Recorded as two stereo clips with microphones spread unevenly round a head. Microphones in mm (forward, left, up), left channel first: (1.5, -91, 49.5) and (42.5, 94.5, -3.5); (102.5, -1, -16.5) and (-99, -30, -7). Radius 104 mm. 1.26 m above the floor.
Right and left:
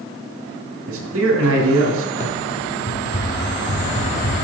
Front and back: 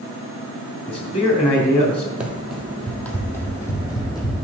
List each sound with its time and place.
0.9 s a man speaking: 70° left, 2.5 m
2.2 s running footsteps: 90° right, 1.9 m; by 4.3 s 60° right, 3 m